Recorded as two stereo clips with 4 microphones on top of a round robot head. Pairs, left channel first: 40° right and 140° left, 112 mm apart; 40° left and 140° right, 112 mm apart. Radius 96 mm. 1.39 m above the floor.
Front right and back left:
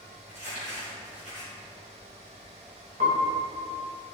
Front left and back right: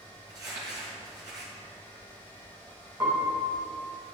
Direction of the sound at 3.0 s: 160° left.